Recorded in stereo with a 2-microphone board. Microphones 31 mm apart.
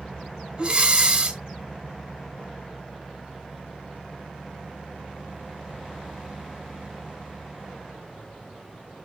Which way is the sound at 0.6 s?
25° right (ahead or behind).